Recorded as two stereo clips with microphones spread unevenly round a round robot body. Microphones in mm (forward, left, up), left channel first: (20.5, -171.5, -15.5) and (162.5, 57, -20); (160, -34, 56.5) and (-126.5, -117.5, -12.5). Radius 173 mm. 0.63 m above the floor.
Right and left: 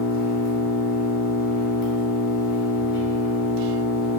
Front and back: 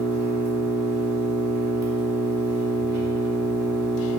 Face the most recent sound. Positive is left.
turn(degrees=-100)